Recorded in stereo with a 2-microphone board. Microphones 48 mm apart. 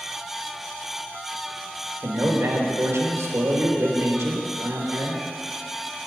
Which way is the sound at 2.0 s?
75° right (ahead or behind).